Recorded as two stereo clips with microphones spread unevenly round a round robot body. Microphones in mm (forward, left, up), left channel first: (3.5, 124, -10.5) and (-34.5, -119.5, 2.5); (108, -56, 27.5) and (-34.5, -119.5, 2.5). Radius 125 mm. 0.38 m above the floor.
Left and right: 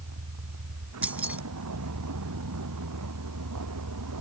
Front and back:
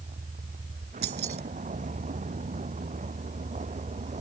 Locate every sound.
0.0 s a vehicle: 125° right; by 4.2 s 115° right
1.0 s keys jangling: 175° left